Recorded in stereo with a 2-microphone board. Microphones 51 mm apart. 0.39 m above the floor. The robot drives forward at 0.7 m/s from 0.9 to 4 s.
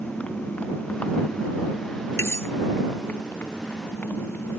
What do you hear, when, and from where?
0.0 s a motorcycle: 25° left (ahead or behind); by 4.6 s 35° left (ahead or behind)
2.2 s cutlery clinking: 55° left (ahead or behind); by 2.5 s 50° left (ahead or behind)